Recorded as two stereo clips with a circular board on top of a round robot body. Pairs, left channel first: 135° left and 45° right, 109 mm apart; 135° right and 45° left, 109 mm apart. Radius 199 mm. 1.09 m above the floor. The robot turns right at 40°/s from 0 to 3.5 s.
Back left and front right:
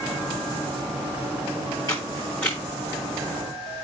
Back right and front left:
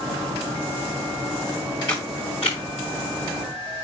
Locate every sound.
1.9 s a camera shutter: 175° right, 0.8 m; by 2.6 s 145° right, 0.8 m